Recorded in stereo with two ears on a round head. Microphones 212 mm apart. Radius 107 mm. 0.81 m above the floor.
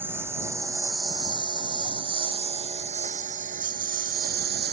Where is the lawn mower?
10° right (ahead or behind); by 4.7 s 45° right (ahead or behind).